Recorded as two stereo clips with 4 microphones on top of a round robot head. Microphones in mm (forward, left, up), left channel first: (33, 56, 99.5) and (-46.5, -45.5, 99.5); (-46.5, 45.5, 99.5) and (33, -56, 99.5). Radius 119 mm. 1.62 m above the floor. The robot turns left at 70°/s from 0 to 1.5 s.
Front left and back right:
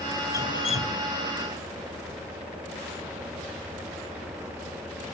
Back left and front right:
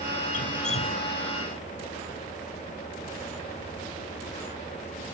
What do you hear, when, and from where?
0.3 s dripping: 120° left; by 1.1 s 70° left